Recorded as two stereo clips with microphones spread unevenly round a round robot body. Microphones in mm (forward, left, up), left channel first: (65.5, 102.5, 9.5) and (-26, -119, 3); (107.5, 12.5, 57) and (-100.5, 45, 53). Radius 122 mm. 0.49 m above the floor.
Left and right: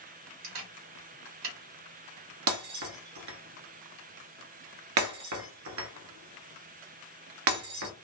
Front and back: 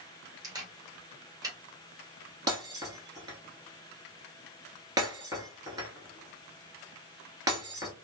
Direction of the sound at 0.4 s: 115° right.